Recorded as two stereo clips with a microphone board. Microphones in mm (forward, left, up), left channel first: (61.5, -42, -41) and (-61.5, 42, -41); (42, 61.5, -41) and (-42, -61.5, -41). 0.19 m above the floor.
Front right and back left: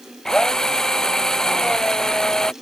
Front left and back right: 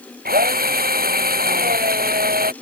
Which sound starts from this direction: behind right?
A drill, at 0.2 s.